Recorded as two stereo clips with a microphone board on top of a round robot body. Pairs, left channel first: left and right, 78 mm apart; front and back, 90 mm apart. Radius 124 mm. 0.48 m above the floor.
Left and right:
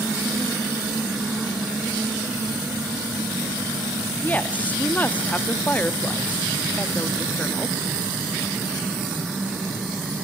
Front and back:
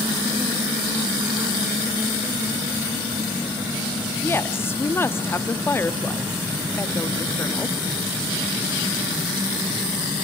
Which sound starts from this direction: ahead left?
A woman speaking, at 4.2 s.